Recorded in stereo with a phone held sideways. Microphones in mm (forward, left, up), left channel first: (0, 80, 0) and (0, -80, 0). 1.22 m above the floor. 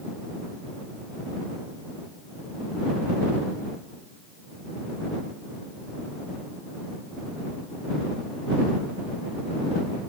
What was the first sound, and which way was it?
Only background noise.